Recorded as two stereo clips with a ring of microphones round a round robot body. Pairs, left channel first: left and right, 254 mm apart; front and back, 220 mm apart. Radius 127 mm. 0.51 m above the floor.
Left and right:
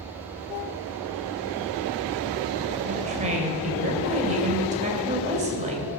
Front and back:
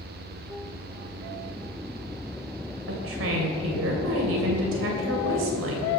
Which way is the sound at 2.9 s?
150° right.